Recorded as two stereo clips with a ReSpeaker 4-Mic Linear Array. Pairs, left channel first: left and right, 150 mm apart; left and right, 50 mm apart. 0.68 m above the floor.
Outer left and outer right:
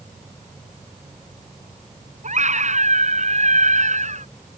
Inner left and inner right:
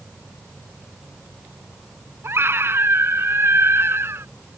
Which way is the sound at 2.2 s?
55° right (ahead or behind).